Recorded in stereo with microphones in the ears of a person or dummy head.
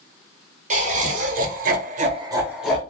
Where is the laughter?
45° right (ahead or behind), 1.1 m; by 2.8 s centre (ahead or behind), 0.7 m.